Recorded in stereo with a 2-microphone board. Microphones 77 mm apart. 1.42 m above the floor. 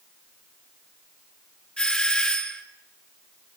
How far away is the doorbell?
About 2 m.